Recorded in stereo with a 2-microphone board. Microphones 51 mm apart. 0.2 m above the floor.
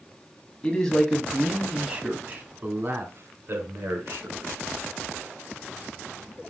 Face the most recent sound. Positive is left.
turn(degrees=-60)  # may be behind; listen again after turning